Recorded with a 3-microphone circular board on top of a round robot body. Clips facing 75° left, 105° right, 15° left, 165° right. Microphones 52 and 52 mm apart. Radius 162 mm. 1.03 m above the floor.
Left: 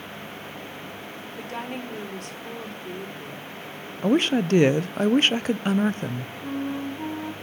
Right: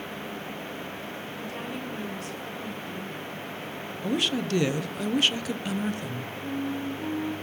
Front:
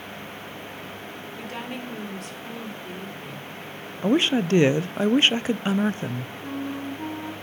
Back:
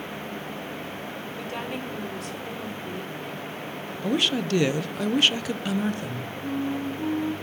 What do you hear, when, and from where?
1.4 s a woman speaking: 105° left, 3.5 m
4.0 s a woman speaking: 60° left, 0.9 m
6.4 s a flute: 85° left, 1.6 m